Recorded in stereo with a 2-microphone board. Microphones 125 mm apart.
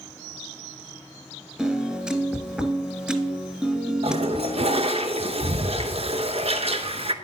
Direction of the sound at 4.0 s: 55° right (ahead or behind).